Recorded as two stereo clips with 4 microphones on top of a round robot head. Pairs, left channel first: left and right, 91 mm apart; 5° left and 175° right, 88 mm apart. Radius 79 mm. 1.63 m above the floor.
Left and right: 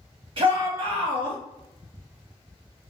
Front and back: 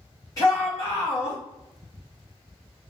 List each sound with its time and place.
0.4 s a shout: 70° right, 1.3 m